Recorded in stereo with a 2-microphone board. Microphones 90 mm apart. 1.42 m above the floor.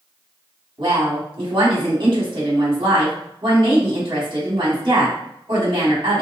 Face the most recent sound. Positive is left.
turn(degrees=-55)  # may be behind; listen again after turning